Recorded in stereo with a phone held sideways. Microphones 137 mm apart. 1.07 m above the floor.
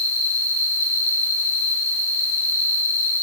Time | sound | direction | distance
0.0 | an insect | 70° left (ahead or behind) | 4.5 m